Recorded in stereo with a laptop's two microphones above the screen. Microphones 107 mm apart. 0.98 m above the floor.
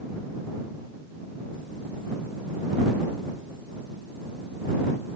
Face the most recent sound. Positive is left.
No sound to turn to.